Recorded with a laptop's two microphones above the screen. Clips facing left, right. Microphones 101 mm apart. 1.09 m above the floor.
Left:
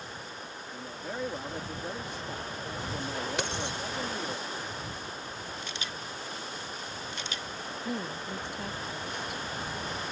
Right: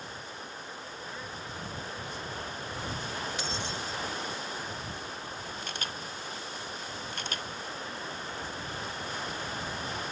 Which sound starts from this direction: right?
A camera shutter, at 5.6 s.